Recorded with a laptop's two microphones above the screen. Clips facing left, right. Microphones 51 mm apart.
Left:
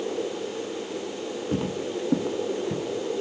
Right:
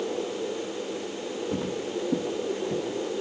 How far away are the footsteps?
About 1.6 m.